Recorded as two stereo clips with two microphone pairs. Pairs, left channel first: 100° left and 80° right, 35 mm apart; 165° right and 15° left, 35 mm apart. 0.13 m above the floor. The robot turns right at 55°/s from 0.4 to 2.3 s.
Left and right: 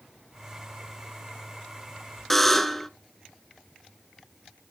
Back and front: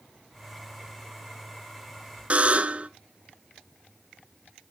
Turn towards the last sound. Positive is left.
turn(degrees=20)